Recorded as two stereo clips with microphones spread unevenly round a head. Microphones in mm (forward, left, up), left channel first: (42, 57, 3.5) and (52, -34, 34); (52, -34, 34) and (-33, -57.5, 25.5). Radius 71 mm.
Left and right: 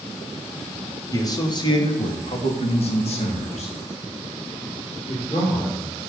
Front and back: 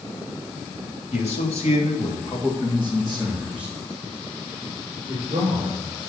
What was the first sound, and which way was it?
A man speaking, 45° left.